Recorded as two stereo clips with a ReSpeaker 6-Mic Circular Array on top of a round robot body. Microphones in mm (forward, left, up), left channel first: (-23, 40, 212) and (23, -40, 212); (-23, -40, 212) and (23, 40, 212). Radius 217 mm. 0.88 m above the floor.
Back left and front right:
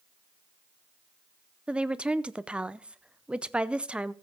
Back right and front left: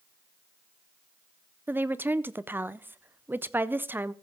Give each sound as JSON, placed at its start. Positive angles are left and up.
{"t": 1.7, "sound": "a woman speaking", "azimuth_deg": 10, "distance_m": 0.9}